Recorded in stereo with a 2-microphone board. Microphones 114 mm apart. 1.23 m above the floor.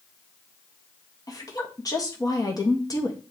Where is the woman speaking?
35° left (ahead or behind), 2 m.